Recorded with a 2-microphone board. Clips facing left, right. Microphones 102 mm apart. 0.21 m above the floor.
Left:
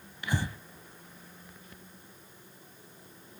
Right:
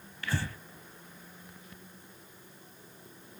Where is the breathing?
20° left (ahead or behind), 0.8 m.